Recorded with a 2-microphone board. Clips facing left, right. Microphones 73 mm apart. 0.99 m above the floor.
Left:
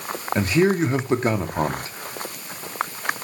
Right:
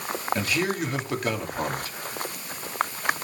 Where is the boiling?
No boiling in this recording.